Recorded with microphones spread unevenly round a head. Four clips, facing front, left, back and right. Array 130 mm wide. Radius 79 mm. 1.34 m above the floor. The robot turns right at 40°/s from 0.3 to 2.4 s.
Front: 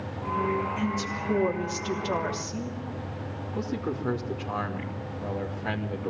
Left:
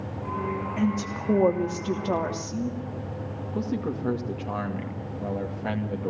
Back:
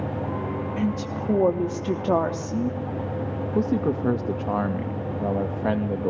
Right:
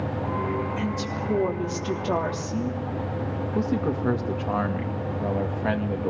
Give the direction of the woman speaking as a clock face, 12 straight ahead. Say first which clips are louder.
Left 1 dB, back 3 dB; 8 o'clock.